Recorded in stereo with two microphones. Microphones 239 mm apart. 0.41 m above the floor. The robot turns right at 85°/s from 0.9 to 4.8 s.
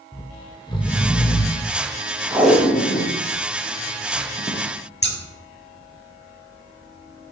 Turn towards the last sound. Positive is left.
turn(degrees=45)  # may be behind; listen again after turning